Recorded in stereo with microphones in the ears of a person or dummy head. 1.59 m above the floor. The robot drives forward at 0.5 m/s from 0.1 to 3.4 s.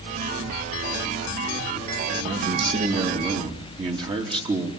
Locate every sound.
2.2 s a man speaking: 45° right (ahead or behind), 2.5 m; by 4.7 s 35° right (ahead or behind), 3 m